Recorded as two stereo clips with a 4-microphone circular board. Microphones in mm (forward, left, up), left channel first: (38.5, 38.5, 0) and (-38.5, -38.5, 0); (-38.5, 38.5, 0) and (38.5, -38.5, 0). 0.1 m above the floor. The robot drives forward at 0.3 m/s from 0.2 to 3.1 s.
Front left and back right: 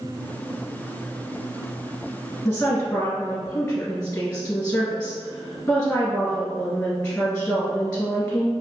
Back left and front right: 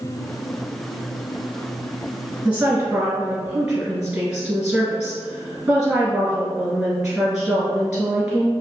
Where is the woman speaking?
Straight ahead, 1.7 m.